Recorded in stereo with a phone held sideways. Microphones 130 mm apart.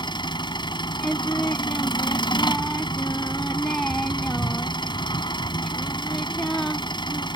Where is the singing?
5° left (ahead or behind).